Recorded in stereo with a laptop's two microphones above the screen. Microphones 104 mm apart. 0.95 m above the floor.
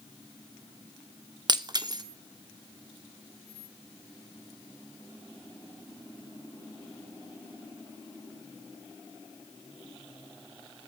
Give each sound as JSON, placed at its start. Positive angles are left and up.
{"t": 1.5, "sound": "breaking glass", "side_deg": -40, "distance_m": 0.8}